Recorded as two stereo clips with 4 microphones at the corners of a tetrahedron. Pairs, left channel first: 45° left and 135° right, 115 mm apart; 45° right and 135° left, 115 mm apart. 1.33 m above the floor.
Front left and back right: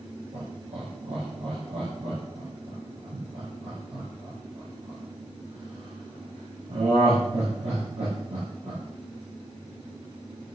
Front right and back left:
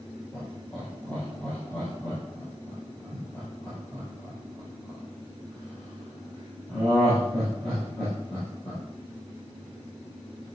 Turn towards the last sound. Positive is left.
turn(degrees=-130)